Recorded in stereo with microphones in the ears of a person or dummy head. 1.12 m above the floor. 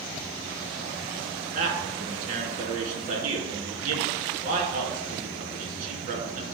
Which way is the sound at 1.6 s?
55° right (ahead or behind).